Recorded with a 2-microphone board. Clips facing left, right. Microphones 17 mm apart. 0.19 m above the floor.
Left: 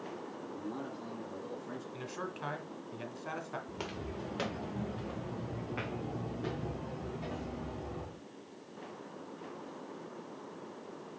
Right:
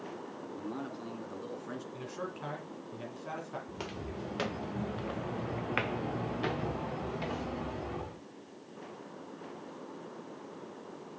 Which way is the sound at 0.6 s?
25° right (ahead or behind).